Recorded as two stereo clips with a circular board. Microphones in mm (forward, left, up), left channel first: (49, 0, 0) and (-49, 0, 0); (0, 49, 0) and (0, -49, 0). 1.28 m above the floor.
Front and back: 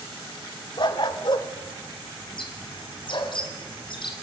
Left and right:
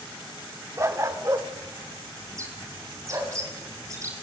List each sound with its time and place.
0.8 s a dog barking: 35° right, 1.5 m
2.3 s a bird: 35° right, 5 m